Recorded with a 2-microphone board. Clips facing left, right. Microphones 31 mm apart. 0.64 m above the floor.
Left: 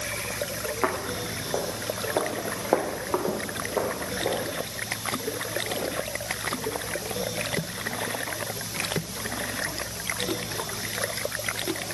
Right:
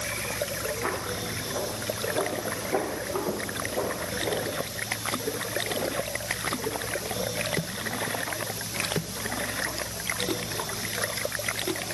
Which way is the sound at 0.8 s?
65° left (ahead or behind).